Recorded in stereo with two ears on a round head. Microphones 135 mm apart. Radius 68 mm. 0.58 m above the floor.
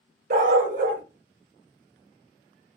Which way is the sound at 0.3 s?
55° right (ahead or behind).